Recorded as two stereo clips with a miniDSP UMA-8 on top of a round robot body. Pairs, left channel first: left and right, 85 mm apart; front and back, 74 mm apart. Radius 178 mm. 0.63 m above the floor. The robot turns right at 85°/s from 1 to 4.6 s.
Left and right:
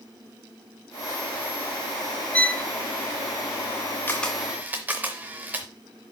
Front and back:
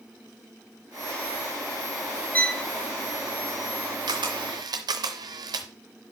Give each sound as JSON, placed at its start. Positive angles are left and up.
{"t": 2.3, "sound": "a violin", "azimuth_deg": 40, "distance_m": 1.0}
{"t": 4.1, "sound": "a camera shutter", "azimuth_deg": 155, "distance_m": 0.6}